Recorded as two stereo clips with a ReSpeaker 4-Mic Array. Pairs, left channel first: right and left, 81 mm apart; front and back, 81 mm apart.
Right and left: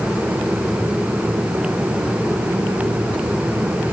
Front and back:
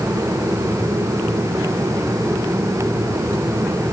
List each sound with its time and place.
Only background noise.